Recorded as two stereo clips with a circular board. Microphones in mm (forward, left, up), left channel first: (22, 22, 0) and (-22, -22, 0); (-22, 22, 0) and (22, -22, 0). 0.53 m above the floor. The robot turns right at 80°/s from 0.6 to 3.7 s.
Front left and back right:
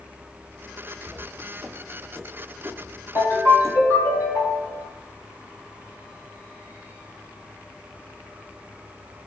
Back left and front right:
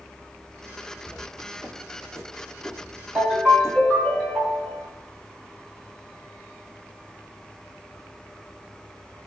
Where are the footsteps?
175° left, 1.4 m; by 3.8 s 45° right, 0.9 m.